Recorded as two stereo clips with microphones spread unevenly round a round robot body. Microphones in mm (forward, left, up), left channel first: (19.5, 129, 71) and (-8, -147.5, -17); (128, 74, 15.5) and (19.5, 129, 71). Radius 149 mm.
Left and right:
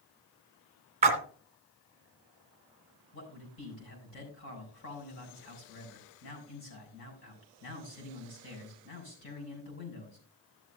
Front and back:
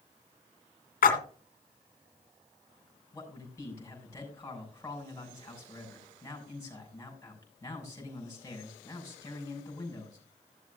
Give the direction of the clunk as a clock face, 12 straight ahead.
I don't hear a clunk.